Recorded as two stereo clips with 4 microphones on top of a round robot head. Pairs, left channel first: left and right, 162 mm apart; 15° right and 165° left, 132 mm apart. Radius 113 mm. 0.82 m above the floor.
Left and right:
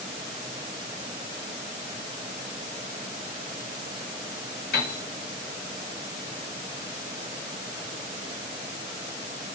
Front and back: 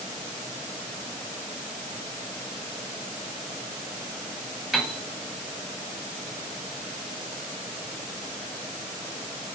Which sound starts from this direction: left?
A piano, at 4.7 s.